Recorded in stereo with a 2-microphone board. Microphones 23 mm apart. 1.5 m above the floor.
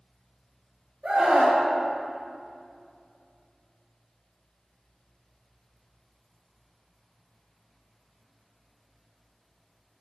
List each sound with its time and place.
1.0 s a scream: 55° right (ahead or behind), 1.9 m